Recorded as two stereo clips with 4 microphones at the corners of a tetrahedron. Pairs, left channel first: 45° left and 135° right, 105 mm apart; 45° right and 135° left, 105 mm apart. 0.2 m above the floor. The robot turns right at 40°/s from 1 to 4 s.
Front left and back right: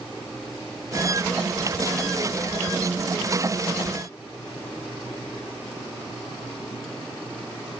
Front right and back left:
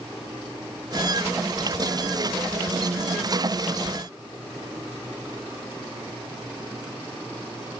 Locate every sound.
Only background noise.